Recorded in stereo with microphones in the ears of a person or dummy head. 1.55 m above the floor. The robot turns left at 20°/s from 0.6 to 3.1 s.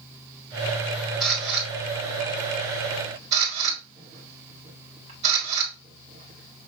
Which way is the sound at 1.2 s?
5° right (ahead or behind).